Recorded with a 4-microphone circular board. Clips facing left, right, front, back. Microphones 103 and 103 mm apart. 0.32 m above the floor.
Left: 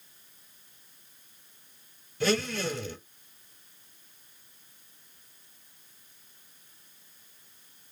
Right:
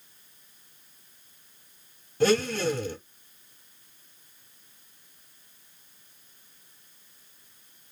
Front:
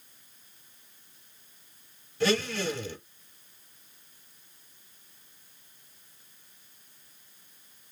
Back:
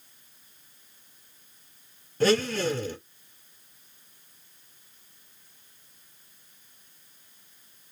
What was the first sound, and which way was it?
A blender, 130° right.